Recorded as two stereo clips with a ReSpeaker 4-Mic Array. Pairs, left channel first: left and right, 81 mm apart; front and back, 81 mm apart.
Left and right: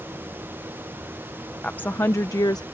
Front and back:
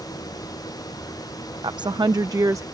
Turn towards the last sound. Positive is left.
turn(degrees=130)